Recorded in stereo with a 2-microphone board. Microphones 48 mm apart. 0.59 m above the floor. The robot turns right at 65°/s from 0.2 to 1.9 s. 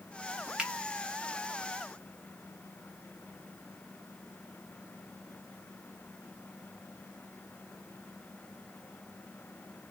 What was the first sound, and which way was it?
A finger snap, 20° right (ahead or behind).